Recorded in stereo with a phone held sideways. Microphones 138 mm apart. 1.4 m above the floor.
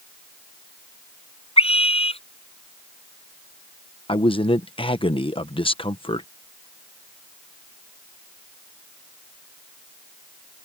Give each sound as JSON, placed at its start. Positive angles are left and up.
{"t": 1.6, "sound": "a scream", "side_deg": 45}
{"t": 4.1, "sound": "a man speaking", "side_deg": 40}